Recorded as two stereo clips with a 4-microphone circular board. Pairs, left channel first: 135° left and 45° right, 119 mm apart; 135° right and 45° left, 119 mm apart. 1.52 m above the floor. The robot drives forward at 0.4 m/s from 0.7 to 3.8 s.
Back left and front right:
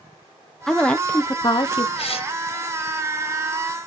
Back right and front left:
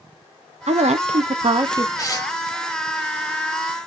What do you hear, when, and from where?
0.7 s a woman speaking: 50° left, 0.6 m; by 1.9 s 100° left, 0.5 m
2.0 s tearing paper: 165° left, 1.1 m